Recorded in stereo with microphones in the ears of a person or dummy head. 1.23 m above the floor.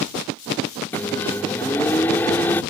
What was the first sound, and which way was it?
A microwave, 10° left (ahead or behind).